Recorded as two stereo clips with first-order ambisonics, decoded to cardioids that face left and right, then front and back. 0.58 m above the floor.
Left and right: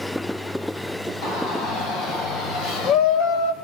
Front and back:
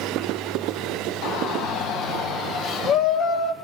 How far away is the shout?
About 5.5 m.